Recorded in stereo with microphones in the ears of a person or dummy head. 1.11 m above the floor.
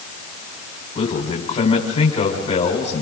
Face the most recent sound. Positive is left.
turn(degrees=30)  # may be behind; listen again after turning